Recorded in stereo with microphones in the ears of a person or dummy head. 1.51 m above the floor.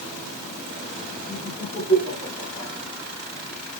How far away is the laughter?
About 9 m.